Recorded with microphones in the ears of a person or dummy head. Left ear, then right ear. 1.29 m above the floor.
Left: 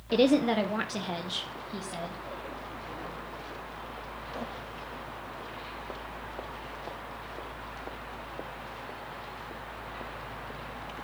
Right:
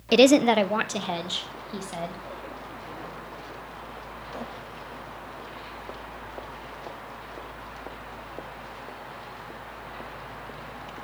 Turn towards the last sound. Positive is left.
turn(degrees=-15)  # may be behind; listen again after turning